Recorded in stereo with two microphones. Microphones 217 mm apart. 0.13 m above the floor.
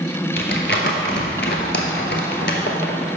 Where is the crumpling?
55° left (ahead or behind), 0.8 m.